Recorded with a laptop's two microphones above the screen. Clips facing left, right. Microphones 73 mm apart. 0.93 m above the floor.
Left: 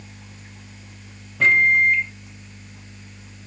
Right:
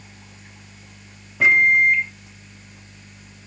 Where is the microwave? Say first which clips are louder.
Right 1 dB; 5° right (ahead or behind), 0.5 m.